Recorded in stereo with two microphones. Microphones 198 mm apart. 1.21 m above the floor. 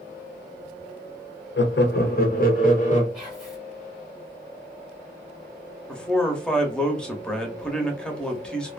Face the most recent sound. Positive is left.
turn(degrees=5)  # may be behind; listen again after turning